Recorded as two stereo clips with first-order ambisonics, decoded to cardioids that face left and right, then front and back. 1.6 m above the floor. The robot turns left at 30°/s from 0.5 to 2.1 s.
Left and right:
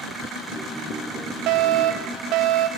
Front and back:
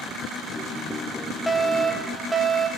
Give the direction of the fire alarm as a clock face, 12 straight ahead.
3 o'clock.